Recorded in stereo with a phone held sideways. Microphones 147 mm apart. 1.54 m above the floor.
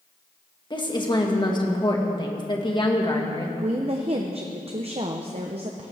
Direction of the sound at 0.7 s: 30° left (ahead or behind).